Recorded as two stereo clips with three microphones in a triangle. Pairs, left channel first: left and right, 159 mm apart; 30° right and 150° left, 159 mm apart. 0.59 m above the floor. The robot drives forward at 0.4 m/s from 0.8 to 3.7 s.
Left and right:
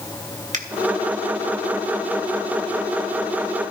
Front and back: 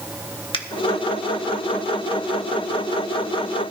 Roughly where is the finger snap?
Right.